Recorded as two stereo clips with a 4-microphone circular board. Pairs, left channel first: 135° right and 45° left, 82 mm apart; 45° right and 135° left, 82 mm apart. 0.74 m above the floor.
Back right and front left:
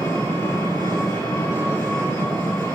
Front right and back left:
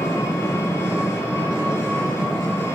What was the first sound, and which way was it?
An engine running, 95° right.